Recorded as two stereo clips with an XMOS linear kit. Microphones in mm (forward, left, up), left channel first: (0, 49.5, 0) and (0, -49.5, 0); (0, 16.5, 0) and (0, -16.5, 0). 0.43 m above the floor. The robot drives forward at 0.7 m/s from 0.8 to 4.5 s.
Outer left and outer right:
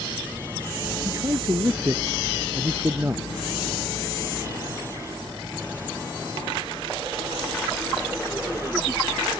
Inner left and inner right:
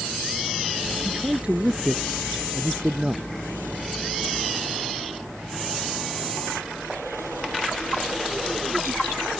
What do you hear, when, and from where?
1.1 s a man speaking: 30° right (ahead or behind); by 3.3 s 25° right (ahead or behind)